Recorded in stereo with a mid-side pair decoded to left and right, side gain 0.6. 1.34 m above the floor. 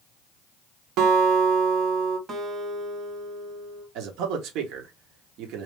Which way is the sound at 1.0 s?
65° right.